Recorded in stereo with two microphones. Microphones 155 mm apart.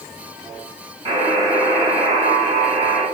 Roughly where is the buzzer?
Right.